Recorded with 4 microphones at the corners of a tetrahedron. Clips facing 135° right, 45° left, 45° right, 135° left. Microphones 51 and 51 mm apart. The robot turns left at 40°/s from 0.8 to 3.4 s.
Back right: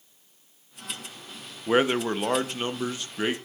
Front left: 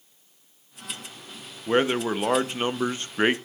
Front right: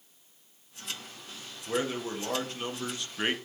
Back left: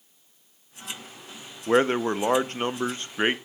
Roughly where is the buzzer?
I don't hear a buzzer.